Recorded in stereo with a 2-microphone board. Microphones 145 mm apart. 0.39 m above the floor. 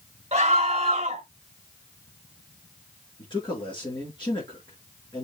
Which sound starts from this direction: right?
A scream, at 0.3 s.